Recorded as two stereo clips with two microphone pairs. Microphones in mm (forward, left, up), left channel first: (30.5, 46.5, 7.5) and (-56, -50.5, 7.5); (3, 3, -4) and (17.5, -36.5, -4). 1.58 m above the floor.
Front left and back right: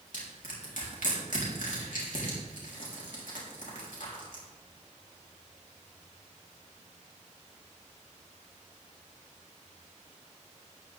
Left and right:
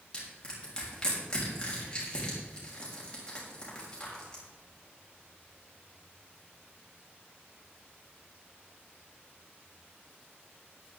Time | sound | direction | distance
0.1 | crushing | 40° left | 4 m